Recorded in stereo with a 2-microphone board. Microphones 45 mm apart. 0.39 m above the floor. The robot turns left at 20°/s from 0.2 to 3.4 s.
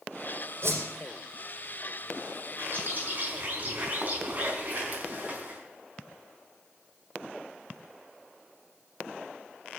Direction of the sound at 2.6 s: 50° right (ahead or behind).